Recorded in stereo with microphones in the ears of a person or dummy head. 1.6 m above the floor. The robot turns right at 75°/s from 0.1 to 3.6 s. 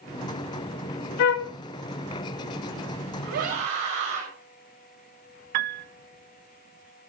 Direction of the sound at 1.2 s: 45° left (ahead or behind).